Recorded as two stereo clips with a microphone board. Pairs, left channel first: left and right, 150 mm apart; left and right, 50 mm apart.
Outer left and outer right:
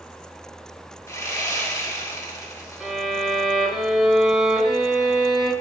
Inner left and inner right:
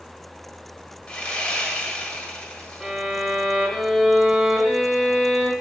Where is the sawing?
20° left (ahead or behind), 1.3 m.